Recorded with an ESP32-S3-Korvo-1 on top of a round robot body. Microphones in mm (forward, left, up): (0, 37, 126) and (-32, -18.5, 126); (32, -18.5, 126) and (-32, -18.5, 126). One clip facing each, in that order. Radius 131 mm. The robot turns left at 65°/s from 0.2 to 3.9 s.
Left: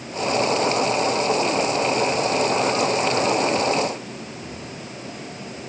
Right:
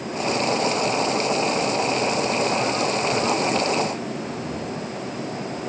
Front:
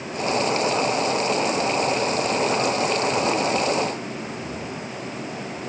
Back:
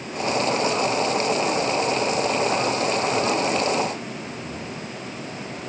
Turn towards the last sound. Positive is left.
No sound to turn to.